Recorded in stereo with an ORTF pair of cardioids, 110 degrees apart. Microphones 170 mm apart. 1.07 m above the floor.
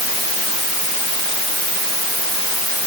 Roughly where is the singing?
I don't hear singing.